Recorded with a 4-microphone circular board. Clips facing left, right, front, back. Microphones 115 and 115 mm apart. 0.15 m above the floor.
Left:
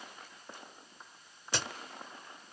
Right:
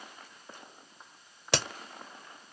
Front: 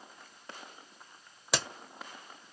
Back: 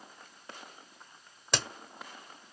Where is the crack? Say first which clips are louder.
Right 6 dB, front 1 dB; 90° right, 0.6 m.